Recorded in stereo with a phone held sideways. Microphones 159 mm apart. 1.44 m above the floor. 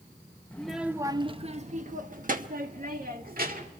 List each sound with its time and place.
0.5 s a child speaking: 10° left (ahead or behind), 0.7 m; by 3.7 s 65° right (ahead or behind), 2.5 m